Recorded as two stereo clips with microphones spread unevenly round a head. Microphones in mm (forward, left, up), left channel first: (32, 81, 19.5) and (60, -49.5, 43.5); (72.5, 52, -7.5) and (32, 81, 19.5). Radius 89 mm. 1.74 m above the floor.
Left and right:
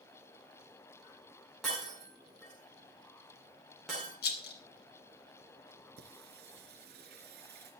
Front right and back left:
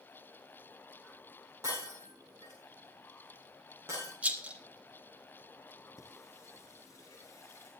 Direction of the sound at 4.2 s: 130° left.